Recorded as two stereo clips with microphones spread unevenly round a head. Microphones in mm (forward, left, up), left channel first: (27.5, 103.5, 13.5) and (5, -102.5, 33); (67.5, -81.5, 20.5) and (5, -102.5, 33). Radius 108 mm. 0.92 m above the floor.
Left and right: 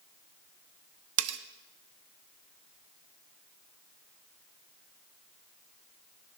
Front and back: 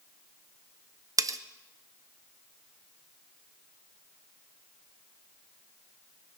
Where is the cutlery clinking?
120° right, 0.6 m.